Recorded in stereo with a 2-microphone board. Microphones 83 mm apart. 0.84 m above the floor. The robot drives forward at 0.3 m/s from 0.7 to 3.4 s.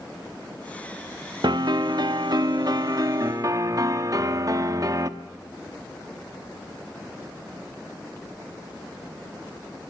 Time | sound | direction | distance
1.4 | a piano | 65° right (ahead or behind) | 1.0 m